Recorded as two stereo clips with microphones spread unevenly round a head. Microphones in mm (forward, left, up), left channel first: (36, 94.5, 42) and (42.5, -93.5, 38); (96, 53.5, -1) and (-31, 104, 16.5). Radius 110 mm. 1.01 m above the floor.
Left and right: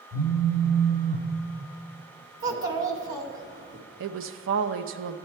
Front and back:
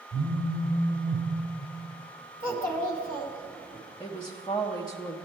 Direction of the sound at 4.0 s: 90° right.